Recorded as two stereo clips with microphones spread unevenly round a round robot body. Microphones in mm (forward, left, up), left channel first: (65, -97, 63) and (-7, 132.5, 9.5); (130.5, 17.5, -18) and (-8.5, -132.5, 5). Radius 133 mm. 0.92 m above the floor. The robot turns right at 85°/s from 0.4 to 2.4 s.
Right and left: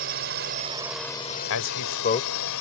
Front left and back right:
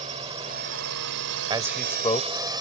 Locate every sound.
0.0 s a drone: 160° left; by 2.6 s 65° right
1.5 s a man speaking: 70° right; by 2.5 s 10° left